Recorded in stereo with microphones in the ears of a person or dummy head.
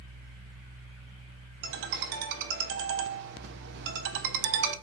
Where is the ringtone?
65° right (ahead or behind), 0.7 m.